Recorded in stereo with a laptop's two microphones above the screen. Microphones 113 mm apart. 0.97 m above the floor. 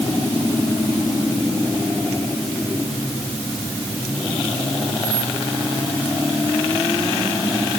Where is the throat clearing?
I don't hear throat clearing.